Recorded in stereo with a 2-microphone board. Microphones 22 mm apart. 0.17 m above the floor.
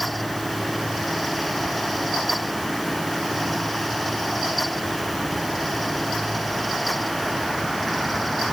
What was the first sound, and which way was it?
Only background noise.